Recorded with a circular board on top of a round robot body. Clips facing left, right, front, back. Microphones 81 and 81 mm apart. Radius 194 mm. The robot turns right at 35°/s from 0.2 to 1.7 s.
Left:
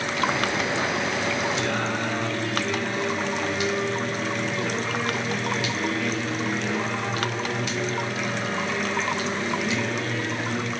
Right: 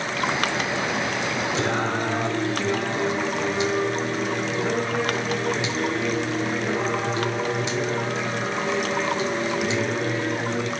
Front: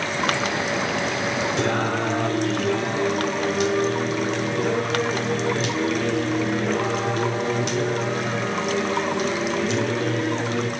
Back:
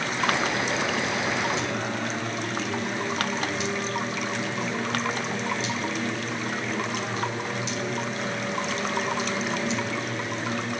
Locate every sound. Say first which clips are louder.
1.6 s singing: right 2 dB, front 6 dB; 30° right, 3.5 m; by 10.7 s 25° right, 3.5 m